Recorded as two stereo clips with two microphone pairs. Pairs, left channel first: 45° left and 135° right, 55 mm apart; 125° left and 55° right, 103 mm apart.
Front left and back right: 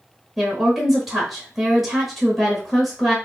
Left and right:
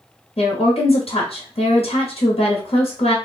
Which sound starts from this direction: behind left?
A woman speaking, at 0.4 s.